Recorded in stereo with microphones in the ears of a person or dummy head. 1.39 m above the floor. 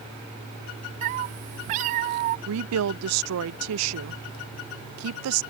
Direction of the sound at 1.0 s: 40° right (ahead or behind).